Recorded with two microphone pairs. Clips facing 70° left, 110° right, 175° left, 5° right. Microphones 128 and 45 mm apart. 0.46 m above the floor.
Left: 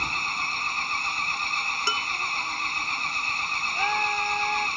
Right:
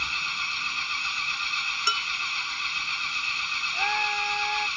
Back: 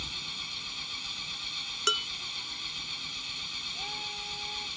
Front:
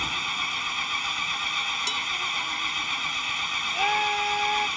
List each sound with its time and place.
0.0 s an engine running: 25° left
1.9 s dishes clattering: 135° left
3.7 s a scream: 10° right